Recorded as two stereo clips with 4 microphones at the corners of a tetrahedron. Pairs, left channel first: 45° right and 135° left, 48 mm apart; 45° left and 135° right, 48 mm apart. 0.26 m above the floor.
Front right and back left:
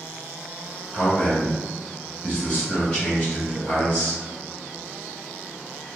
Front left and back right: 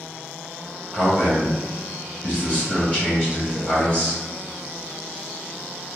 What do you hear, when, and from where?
0.9 s a man speaking: 10° left, 1.8 m